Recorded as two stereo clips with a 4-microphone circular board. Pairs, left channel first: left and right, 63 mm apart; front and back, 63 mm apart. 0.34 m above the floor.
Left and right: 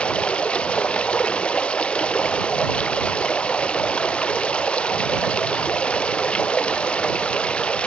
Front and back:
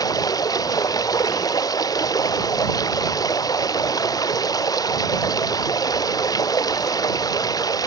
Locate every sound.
0.0 s running water: 15° left